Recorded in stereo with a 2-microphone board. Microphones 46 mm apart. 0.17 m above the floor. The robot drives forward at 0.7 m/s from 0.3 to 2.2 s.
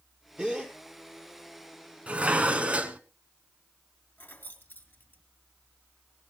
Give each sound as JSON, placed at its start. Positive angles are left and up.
{"t": 0.4, "sound": "a gasp", "side_deg": -20, "distance_m": 2.5}
{"t": 2.1, "sound": "dishes clattering", "side_deg": -25, "distance_m": 1.1}
{"t": 4.2, "sound": "keys jangling", "side_deg": 45, "distance_m": 2.0}